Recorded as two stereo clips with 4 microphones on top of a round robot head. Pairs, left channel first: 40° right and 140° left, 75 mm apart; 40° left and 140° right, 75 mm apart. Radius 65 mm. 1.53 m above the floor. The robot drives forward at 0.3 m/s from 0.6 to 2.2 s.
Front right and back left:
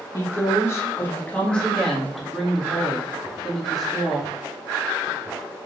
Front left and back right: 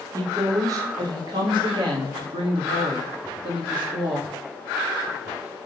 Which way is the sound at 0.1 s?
95° right.